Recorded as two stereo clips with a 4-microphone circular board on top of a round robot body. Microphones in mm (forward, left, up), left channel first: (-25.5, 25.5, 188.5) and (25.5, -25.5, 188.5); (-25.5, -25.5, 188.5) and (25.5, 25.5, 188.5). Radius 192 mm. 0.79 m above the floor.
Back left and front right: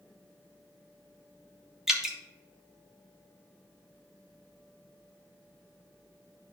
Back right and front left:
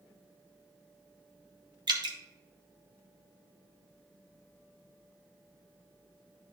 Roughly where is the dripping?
Ahead left.